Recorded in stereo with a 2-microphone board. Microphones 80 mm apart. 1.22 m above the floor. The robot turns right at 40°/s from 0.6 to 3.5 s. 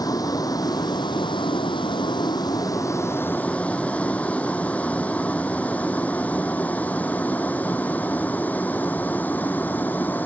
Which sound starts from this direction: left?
A vehicle, at 0.0 s.